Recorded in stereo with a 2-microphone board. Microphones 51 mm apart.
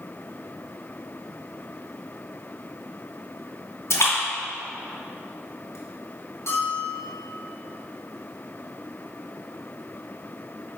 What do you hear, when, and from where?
3.9 s a splash: 65° left (ahead or behind), 2.5 m
6.5 s a bell: 55° left (ahead or behind), 2.5 m